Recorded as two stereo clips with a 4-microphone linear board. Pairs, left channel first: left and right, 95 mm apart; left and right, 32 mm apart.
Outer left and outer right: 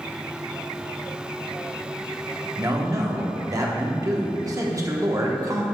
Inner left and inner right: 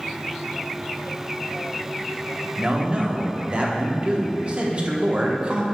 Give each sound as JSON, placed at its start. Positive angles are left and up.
{"t": 2.6, "sound": "a man speaking", "side_deg": -35, "distance_m": 1.0}